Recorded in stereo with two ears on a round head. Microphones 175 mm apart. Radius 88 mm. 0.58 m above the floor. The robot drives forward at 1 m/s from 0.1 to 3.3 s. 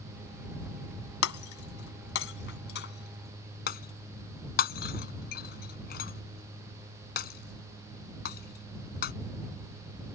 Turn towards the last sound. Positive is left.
turn(degrees=55)  # may be behind; listen again after turning